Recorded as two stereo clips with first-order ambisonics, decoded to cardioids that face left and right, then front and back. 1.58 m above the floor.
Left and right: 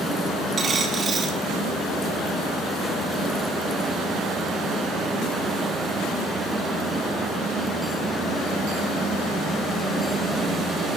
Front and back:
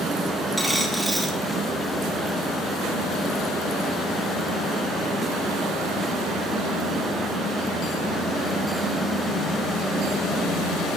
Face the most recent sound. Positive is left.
turn(degrees=-90)